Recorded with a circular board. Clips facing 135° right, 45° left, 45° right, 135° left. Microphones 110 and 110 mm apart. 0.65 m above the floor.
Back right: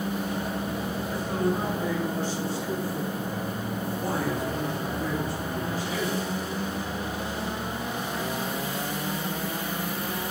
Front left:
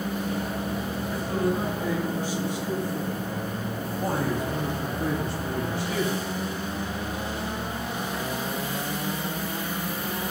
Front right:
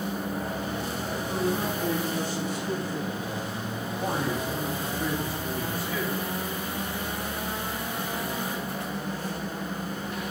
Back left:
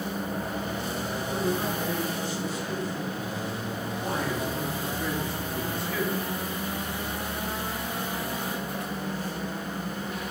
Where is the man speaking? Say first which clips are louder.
Front left 1 dB, front right 1 dB; 45° right, 5 m; by 6.2 s 50° left, 4 m.